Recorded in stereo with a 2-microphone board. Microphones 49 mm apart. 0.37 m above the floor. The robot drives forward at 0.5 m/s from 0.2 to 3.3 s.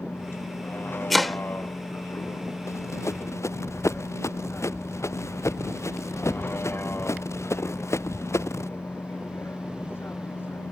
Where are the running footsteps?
75° left (ahead or behind); by 8.7 s 70° left (ahead or behind).